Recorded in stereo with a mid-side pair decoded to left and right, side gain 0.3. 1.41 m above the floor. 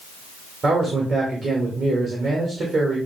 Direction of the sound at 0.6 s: 65° right.